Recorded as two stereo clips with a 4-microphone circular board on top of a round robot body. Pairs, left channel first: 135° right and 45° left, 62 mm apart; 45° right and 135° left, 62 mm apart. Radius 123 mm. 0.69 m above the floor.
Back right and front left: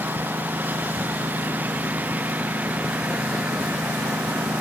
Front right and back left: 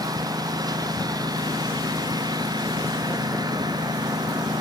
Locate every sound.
0.0 s a lawn mower: 110° left; by 4.6 s 115° left